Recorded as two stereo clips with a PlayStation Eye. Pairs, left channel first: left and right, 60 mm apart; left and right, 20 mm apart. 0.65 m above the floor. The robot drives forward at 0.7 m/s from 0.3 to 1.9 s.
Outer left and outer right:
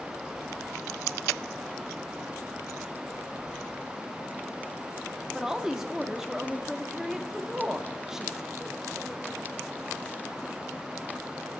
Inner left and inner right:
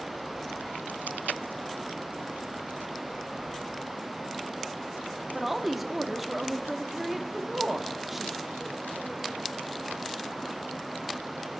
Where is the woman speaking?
10° right (ahead or behind), 0.8 m.